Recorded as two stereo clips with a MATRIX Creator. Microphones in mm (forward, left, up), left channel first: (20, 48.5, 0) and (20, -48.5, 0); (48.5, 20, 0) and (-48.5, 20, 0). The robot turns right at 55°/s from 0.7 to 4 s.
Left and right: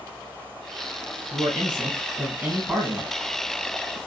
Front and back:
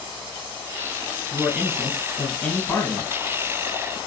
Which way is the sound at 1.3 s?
95° right.